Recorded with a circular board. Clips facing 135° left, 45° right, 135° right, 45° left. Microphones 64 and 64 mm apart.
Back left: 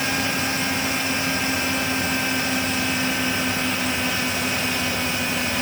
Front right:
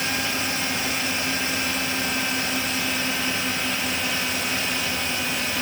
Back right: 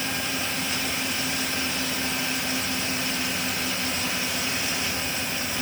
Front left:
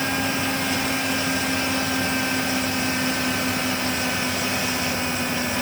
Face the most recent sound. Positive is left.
No sound to turn to.